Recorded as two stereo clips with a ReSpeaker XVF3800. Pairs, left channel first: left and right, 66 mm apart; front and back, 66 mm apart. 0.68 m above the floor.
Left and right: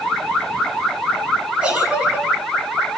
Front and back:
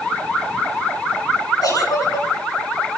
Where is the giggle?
15° right, 9.5 m.